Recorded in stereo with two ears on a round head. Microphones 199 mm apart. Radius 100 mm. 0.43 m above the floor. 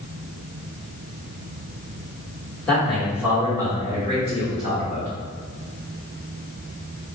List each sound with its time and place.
2.7 s a man speaking: 5° left (ahead or behind), 1.3 m; by 5.1 s 40° right (ahead or behind), 1.6 m